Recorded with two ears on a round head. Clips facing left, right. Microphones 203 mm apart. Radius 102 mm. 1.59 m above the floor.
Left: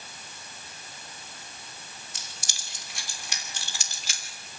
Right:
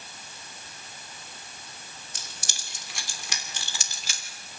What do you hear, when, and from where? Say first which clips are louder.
2.1 s keys jangling: right 1 dB; 40° right (ahead or behind), 3 m; by 4.2 s 75° right (ahead or behind), 3.5 m